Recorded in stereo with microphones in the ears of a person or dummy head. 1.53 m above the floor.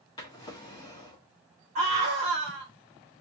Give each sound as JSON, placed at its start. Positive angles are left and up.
{"t": 0.2, "sound": "a drawer", "side_deg": 25, "distance_m": 1.3}
{"t": 1.8, "sound": "a scream", "side_deg": -35, "distance_m": 1.3}